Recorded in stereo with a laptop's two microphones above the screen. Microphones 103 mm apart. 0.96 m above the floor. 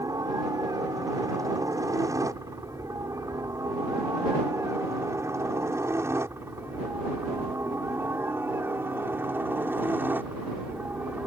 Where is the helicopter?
35° right (ahead or behind); by 11.3 s 15° right (ahead or behind).